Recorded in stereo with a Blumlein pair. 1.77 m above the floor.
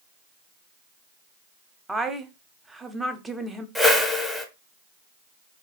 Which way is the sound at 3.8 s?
Straight ahead.